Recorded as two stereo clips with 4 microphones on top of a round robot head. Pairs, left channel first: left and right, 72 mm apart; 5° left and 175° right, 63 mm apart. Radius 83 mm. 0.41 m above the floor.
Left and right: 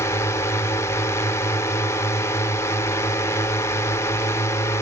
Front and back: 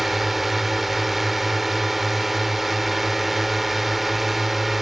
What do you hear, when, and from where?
0.0 s a drone: 95° left